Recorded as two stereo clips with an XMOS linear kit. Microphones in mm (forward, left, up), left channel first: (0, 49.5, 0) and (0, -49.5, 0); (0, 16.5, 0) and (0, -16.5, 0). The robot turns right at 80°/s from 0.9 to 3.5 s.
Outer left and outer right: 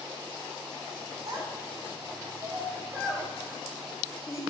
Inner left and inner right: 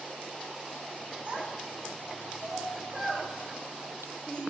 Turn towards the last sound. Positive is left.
turn(degrees=35)  # may be behind; listen again after turning